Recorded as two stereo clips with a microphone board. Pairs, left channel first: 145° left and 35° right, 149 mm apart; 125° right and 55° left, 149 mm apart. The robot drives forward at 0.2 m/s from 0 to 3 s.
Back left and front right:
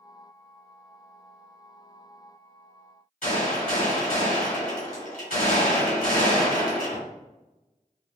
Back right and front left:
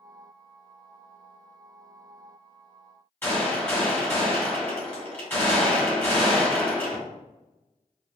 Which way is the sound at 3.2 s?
160° left.